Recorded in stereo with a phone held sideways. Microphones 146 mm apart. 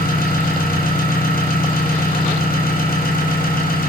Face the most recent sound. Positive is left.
turn(degrees=85)